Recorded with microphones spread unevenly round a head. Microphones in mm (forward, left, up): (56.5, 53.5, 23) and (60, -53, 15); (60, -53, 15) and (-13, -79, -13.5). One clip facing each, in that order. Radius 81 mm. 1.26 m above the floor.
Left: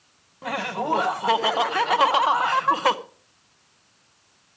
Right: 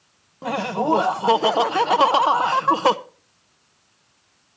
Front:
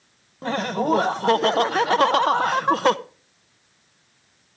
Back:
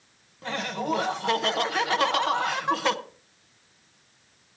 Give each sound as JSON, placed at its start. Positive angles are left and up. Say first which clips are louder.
{"t": 0.4, "sound": "laughter", "louder": "right 5 dB, front 7 dB", "azimuth_deg": -25, "distance_m": 0.8}